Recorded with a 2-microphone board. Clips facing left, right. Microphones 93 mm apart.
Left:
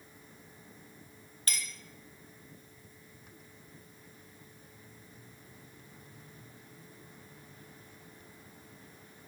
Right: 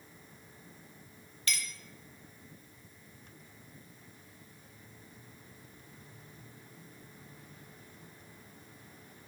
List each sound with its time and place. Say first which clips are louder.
1.5 s a clink: right 2 dB; 40° left (ahead or behind), 0.7 m